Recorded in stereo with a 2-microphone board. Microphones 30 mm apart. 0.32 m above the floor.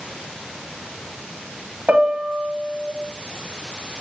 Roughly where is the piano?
Right.